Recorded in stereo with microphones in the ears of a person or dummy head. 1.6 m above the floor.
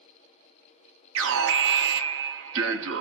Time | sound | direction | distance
1.1 | an alarm | 75° right (ahead or behind) | 1.2 m